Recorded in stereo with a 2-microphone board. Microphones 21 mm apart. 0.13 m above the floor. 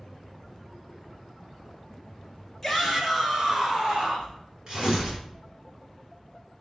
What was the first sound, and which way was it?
A shout, centre (ahead or behind).